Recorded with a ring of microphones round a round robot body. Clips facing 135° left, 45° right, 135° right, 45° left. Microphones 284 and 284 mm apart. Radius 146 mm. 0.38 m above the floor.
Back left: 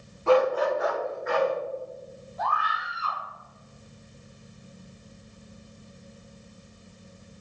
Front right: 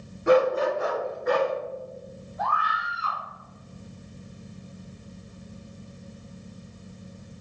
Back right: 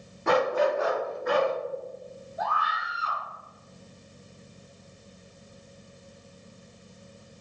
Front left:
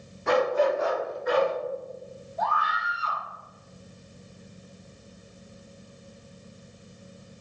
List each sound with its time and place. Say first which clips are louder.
0.3 s a dog barking: front right 1 dB, front left 1 dB; 120° right, 1.0 m; by 1.5 s 90° right, 1.6 m
2.4 s a scream: front right 1 dB, front left 2 dB; 145° left, 1.5 m